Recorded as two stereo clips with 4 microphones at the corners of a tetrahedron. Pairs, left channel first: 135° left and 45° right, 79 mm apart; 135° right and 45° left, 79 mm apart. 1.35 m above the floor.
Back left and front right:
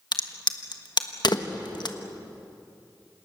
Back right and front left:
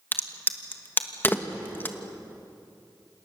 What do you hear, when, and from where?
0.1 s a crack: 160° left, 1.3 m